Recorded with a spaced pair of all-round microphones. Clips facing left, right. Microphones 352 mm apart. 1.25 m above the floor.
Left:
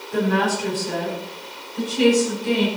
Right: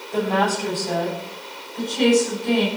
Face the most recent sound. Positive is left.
turn(degrees=15)  # may be behind; listen again after turning